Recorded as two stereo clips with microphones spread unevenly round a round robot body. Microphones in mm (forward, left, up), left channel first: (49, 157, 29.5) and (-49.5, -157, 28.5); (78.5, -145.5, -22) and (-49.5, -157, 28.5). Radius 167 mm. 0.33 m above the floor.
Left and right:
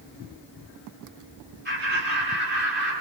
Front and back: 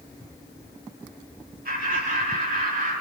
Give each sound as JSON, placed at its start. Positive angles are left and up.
{"t": 1.6, "sound": "laughter", "azimuth_deg": -170, "distance_m": 3.5}